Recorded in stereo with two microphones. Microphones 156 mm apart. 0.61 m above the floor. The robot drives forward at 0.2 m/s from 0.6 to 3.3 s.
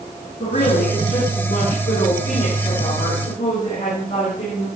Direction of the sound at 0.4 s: 85° left.